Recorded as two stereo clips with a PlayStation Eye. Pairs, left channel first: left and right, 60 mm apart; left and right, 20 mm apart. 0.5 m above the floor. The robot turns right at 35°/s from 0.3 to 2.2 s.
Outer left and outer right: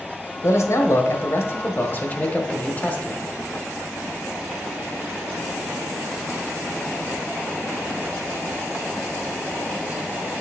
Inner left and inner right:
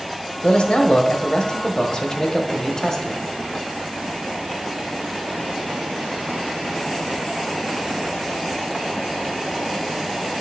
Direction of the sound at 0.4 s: 80° left.